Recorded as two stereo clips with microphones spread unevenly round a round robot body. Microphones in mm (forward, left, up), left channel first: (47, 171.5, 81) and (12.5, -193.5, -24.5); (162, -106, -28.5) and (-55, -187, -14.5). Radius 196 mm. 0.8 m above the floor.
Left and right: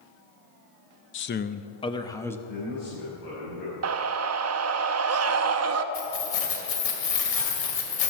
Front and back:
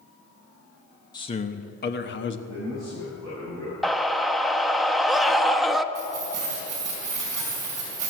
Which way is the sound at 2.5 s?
70° left.